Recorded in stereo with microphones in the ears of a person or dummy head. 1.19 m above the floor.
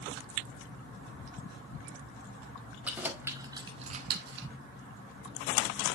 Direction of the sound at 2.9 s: 10° right (ahead or behind).